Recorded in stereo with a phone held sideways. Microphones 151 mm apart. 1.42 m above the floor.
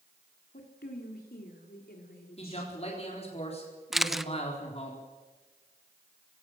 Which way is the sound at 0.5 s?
75° left (ahead or behind).